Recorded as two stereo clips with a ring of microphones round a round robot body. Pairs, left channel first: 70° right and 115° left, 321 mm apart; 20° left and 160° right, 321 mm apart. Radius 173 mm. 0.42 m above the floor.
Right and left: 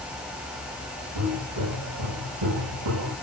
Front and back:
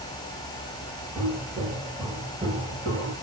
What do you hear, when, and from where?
1.1 s footsteps: 115° left, 7 m; by 3.1 s 130° left, 7 m